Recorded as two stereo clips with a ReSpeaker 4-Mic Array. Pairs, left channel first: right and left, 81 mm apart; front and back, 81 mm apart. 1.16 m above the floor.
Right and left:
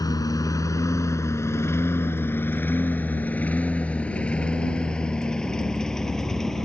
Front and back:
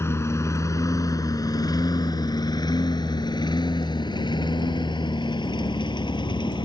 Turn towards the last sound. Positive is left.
turn(degrees=-5)